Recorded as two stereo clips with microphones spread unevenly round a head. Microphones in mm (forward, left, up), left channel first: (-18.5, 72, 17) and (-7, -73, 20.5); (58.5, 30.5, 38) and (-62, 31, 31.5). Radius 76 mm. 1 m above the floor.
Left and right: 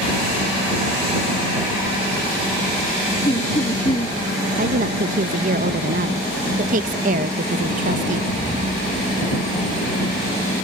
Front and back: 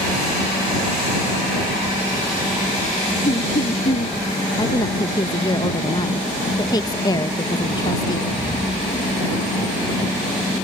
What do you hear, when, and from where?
3.2 s laughter: 30° left
4.6 s a woman speaking: 60° right